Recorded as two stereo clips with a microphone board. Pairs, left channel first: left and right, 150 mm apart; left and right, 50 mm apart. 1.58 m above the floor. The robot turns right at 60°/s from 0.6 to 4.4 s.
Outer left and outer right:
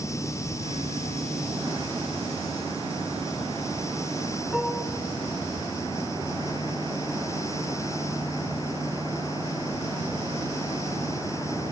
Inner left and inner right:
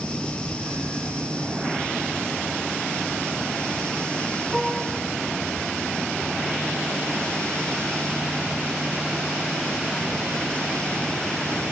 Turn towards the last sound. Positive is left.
turn(degrees=0)  # may be behind; listen again after turning